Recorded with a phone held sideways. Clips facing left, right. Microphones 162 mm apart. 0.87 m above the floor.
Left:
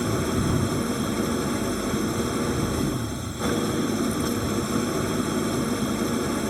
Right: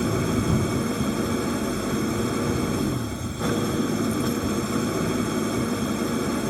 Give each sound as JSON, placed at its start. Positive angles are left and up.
{"t": 0.0, "sound": "an engine running", "side_deg": 0}